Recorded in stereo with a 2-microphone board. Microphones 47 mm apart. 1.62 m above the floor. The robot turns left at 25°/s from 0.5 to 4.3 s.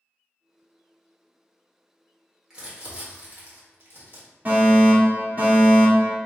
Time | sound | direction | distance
2.5 | crumpling | 15° right (ahead or behind) | 1.6 m
4.5 | a fire alarm | 35° right (ahead or behind) | 1.9 m